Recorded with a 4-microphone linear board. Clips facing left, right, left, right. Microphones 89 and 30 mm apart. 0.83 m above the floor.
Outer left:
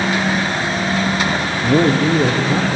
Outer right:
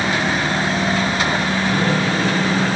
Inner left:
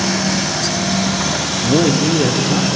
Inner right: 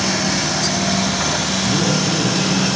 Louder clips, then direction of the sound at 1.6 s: Outer left 9 dB, inner left 7 dB; 65° left (ahead or behind).